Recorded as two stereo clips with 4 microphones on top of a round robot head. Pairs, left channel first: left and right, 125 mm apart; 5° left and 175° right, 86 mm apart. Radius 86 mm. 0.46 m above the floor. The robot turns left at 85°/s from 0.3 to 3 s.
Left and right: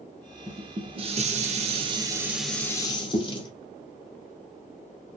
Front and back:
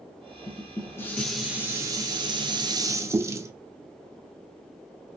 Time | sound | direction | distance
0.5 | dishes clattering | 10° right | 0.6 m